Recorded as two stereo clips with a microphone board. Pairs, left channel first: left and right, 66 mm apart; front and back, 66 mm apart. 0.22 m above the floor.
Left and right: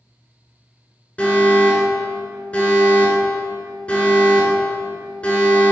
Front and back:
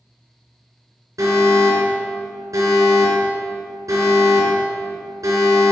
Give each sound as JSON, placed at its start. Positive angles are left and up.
{"t": 1.2, "sound": "an alarm", "azimuth_deg": 160, "distance_m": 3.5}